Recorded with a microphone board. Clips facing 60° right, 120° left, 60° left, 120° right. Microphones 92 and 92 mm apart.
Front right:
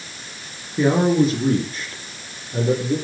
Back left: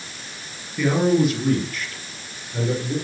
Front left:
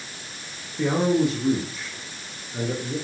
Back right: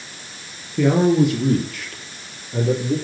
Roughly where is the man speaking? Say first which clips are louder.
Front right 2 dB, back right 5 dB; behind right.